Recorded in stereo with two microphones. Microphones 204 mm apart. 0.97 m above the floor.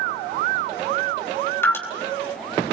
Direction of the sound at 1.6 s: 10° left (ahead or behind).